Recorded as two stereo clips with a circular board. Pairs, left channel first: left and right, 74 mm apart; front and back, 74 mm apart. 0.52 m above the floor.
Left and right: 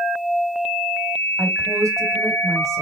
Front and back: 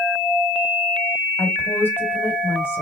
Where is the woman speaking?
45° right, 2.5 m.